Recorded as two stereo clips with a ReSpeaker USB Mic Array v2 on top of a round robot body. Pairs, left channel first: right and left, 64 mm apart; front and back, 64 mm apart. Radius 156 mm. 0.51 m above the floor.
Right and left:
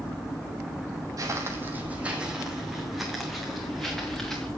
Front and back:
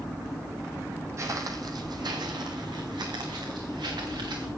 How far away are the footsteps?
About 1.0 m.